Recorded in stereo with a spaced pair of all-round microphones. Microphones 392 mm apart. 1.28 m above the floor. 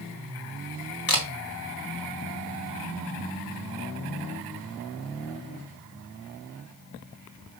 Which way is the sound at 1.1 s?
55° left (ahead or behind).